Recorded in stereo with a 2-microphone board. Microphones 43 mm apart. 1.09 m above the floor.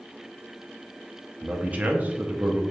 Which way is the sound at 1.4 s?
40° right (ahead or behind).